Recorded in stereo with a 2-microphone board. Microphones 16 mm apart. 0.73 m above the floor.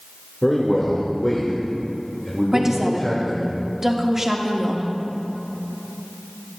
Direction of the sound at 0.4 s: 15° left (ahead or behind).